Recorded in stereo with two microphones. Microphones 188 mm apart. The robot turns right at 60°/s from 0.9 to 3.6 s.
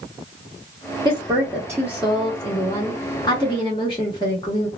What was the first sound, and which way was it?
A woman speaking, 25° right (ahead or behind).